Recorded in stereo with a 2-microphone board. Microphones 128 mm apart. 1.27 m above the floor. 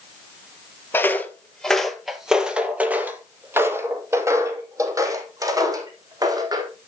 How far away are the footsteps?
About 1.4 m.